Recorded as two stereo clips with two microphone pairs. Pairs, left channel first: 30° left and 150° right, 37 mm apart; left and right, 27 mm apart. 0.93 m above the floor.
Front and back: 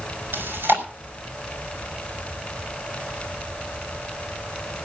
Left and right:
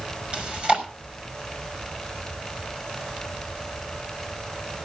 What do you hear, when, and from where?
0.3 s chewing: 135° right, 5 m